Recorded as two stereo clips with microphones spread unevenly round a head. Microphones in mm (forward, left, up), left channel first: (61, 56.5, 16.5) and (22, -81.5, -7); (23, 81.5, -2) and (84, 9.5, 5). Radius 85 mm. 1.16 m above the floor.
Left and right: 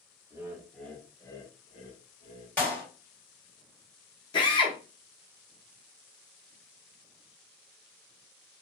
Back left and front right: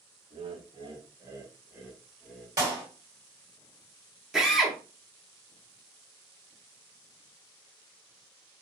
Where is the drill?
35° left, 0.9 m.